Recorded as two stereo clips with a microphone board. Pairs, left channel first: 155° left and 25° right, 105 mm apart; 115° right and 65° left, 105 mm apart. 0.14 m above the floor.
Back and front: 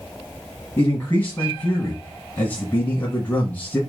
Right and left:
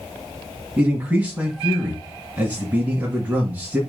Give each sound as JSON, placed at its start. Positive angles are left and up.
{"t": 0.8, "sound": "a man speaking", "azimuth_deg": 115, "distance_m": 1.7}